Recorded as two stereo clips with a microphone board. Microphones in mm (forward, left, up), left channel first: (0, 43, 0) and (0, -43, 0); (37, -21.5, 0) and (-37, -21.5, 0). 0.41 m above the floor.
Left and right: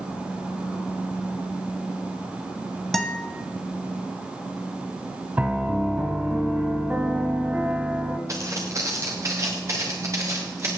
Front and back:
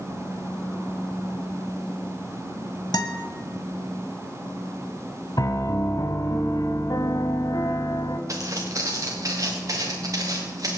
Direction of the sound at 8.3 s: 140° right.